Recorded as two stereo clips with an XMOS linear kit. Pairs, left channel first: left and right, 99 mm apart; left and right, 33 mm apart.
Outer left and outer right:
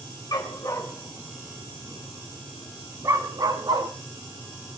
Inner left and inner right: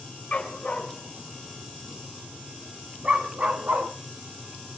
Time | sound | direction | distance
0.3 | a dog barking | 40° left (ahead or behind) | 3 m